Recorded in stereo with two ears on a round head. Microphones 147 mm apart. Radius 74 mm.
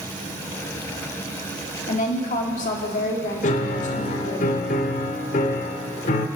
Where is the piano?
45° left (ahead or behind), 0.9 m.